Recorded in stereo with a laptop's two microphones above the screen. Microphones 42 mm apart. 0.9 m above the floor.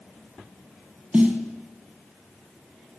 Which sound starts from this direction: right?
A snare drum, at 1.1 s.